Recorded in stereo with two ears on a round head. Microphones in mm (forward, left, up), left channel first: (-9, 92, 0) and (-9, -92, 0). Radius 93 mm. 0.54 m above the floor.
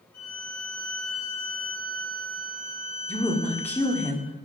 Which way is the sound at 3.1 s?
10° left (ahead or behind).